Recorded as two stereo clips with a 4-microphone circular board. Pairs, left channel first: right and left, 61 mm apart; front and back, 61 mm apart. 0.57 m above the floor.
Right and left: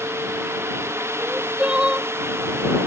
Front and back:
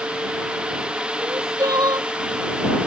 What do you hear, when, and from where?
1.2 s crying: 160° left